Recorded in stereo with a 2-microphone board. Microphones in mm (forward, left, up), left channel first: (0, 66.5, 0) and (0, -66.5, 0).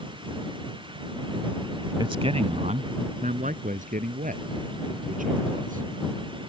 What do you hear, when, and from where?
2.0 s a man speaking: 35° right (ahead or behind); by 5.8 s 80° right